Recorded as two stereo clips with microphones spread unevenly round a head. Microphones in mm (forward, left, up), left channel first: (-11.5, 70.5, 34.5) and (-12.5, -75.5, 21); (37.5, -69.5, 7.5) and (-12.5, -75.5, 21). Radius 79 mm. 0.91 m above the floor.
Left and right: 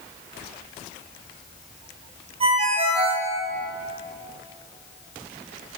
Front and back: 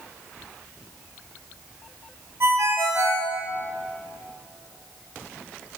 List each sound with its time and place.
2.4 s a ringtone: 145° right, 3.5 m